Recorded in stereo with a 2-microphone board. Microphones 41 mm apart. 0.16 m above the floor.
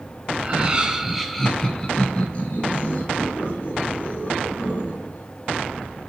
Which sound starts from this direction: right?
Laughter, at 0.4 s.